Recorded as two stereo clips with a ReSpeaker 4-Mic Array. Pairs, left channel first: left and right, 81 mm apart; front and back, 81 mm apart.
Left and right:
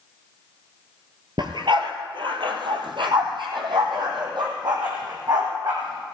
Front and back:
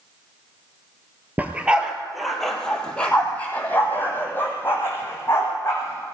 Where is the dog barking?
110° right, 1.6 m; by 6.2 s 60° right, 4.5 m.